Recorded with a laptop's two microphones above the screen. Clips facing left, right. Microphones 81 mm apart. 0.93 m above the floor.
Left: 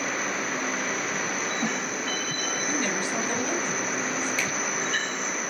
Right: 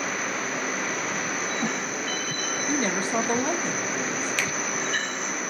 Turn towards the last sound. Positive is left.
turn(degrees=-75)  # may be behind; listen again after turning